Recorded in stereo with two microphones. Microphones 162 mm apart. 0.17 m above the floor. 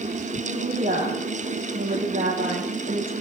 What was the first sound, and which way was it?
A woman speaking, 65° right (ahead or behind).